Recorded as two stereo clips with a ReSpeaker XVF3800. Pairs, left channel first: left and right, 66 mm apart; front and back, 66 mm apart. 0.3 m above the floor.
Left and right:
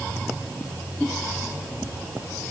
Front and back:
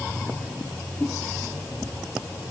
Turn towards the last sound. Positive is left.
No sound to turn to.